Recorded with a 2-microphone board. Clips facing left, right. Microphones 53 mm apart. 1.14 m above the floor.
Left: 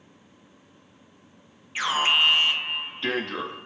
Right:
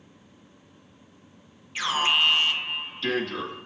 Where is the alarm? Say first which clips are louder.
Left 1 dB; 25° left (ahead or behind), 2.5 m.